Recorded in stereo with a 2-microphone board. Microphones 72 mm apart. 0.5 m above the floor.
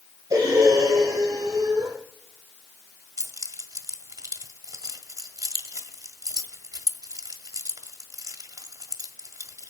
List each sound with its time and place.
0.3 s breathing: 65° right (ahead or behind), 8.5 m
3.2 s keys jangling: 55° right (ahead or behind), 1.5 m